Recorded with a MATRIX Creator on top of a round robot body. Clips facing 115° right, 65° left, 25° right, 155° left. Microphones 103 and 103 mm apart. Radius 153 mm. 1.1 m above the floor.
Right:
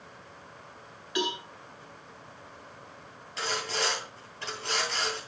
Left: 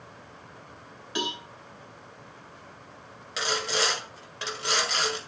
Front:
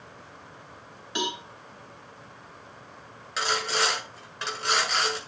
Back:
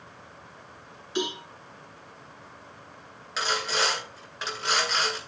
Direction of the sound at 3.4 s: 65° left.